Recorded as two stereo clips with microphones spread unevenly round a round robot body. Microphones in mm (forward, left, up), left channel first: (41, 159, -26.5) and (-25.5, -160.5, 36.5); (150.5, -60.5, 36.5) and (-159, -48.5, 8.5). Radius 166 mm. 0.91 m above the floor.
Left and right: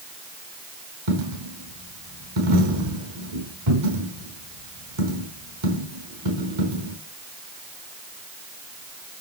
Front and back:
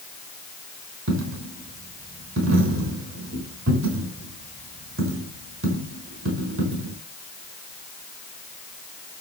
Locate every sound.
1.1 s a dropped coin: 130° right, 4.5 m